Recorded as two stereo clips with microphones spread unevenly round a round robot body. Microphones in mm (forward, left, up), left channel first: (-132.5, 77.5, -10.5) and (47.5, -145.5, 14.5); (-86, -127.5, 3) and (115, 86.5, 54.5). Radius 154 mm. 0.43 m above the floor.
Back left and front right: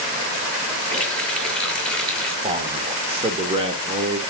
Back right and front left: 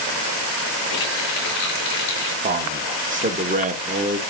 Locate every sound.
0.9 s a running tap: 145° right, 5.5 m
2.4 s a man speaking: straight ahead, 1.3 m